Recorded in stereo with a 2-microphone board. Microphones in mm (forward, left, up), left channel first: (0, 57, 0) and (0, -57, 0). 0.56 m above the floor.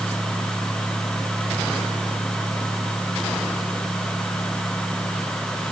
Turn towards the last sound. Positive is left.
No sound to turn to.